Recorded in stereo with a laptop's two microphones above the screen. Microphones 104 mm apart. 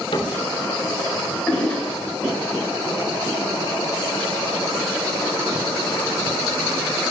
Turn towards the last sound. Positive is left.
turn(degrees=10)  # may be behind; listen again after turning